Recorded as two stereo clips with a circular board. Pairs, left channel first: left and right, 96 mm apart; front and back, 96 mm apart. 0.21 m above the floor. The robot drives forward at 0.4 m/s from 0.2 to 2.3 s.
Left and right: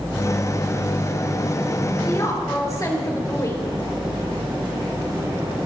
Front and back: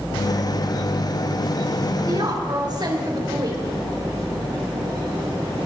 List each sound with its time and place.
2.1 s a woman speaking: 140° left, 4 m